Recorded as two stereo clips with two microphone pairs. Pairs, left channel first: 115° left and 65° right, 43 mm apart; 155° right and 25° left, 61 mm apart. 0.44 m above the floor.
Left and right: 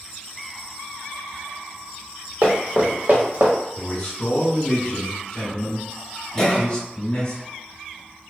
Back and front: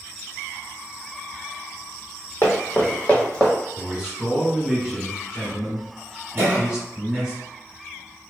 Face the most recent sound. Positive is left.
turn(degrees=60)